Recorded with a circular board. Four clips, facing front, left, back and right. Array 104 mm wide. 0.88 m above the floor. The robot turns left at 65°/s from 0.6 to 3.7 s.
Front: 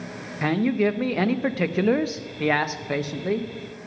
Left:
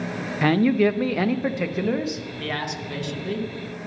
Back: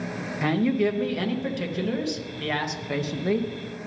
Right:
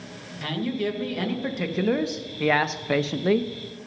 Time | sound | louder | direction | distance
0.4 | a man speaking | left 9 dB, front 1 dB | 80° left | 0.5 m